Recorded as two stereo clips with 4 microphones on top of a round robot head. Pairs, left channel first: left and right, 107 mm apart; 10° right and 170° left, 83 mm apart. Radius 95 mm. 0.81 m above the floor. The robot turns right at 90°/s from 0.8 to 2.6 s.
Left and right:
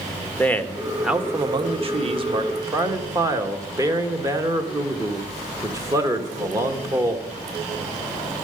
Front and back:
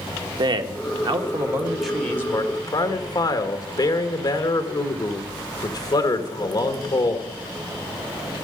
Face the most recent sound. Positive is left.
turn(degrees=-35)